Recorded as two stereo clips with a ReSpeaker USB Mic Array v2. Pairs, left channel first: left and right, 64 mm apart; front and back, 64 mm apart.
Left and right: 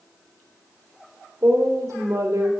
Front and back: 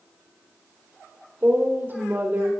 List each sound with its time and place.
1.4 s a woman speaking: 125° right, 3 m